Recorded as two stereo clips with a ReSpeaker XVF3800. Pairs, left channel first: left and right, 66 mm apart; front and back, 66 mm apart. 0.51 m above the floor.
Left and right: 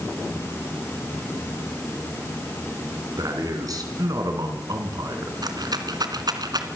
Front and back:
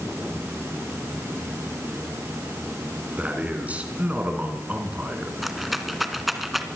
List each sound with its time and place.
3.2 s a man speaking: 115° right, 4.5 m
5.4 s a rattle: 90° right, 2 m